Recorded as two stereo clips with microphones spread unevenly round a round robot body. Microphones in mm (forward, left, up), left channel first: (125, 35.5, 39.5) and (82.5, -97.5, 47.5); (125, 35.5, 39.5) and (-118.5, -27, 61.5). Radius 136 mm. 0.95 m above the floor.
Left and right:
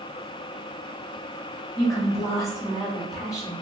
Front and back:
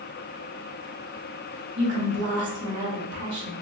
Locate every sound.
1.8 s a woman speaking: 145° left, 1.4 m